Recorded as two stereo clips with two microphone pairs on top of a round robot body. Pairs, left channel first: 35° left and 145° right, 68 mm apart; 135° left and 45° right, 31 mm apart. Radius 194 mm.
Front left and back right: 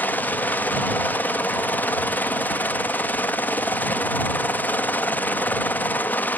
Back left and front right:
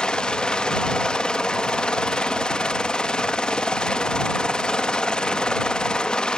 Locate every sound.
0.0 s a helicopter: 85° left